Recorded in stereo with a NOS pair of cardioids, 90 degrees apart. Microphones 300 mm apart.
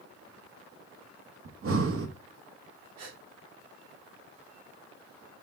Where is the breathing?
45° right, 1.9 m.